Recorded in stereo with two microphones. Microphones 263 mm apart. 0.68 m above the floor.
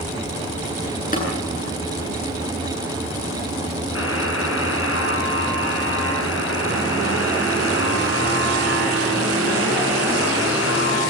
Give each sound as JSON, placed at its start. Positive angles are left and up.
{"t": 1.1, "sound": "tapping", "side_deg": 30, "distance_m": 9.0}
{"t": 4.0, "sound": "a buzzer", "side_deg": 55, "distance_m": 7.0}